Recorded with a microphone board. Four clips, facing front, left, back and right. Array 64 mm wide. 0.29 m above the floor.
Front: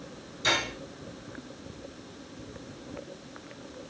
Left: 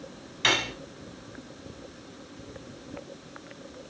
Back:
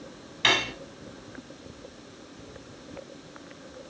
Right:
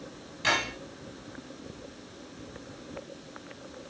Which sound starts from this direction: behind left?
Cutlery clinking, at 0.4 s.